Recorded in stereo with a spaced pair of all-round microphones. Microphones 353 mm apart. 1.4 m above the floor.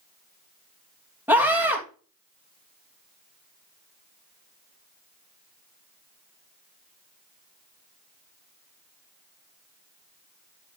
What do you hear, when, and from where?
1.3 s a scream: 5° right (ahead or behind), 2.5 m